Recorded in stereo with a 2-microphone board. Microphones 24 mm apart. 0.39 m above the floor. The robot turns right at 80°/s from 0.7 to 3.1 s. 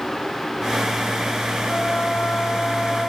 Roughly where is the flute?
Ahead left.